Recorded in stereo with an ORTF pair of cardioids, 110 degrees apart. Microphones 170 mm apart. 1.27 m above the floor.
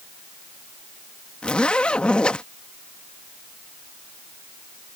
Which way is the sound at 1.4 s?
5° left.